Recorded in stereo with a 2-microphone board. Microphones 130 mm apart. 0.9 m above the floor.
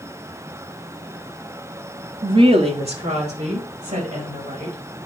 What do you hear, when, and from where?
2.2 s a woman speaking: 35° right (ahead or behind), 1.1 m; by 4.8 s 60° right (ahead or behind), 5 m